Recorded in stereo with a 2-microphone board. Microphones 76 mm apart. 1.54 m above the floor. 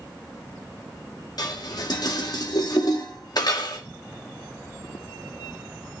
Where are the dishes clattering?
60° left (ahead or behind), 2 m.